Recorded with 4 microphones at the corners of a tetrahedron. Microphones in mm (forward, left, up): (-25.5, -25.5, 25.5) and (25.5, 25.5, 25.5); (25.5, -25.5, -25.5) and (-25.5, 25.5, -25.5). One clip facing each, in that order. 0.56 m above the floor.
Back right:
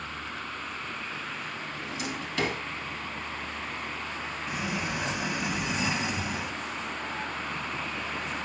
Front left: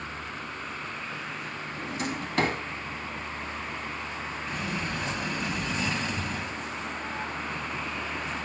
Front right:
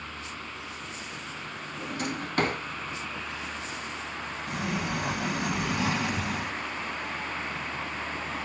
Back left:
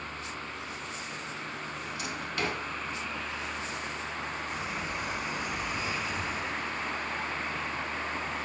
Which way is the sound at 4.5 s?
55° right.